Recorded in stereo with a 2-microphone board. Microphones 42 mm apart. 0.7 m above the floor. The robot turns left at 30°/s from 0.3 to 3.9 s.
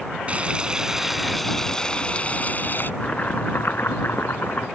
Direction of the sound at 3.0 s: 30° left (ahead or behind).